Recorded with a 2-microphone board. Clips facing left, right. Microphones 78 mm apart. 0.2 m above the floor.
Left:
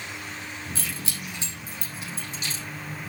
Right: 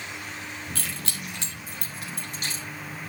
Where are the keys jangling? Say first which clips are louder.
Even; 60° right (ahead or behind), 3.5 m; by 2.6 s 55° right (ahead or behind), 6 m.